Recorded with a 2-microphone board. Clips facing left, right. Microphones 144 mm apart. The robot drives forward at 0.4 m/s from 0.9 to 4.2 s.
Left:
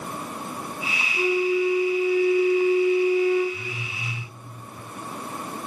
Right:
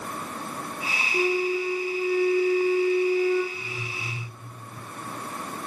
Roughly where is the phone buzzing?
Left.